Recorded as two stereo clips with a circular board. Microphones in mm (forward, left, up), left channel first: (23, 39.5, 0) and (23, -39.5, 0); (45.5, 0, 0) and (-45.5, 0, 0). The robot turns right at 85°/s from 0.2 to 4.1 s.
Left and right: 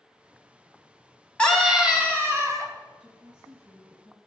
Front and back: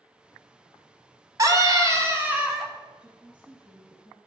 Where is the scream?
160° left, 1.5 m; by 2.7 s 90° right, 1.5 m.